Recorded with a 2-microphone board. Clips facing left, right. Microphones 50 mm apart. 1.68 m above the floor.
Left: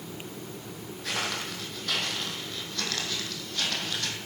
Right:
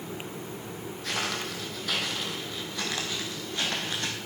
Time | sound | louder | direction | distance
1.0 | footsteps | even | 5° left (ahead or behind) | 3.5 m